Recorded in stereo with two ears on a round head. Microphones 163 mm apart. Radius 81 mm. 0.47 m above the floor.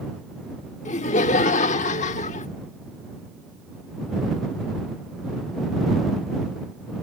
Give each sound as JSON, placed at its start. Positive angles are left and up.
{"t": 0.8, "sound": "laughter", "side_deg": 40}